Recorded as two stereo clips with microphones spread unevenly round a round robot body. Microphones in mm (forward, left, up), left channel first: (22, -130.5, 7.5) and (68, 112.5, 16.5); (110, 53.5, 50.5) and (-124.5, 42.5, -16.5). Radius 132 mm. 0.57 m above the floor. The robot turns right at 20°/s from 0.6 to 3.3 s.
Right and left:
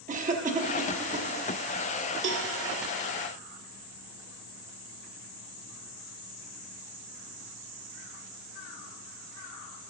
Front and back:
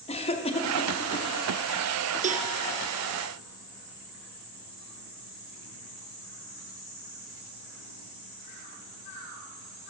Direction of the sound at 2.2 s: 125° left.